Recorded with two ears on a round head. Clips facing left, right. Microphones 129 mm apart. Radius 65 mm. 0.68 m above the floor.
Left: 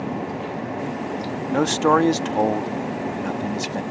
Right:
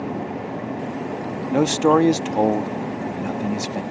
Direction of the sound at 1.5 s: 15° right (ahead or behind).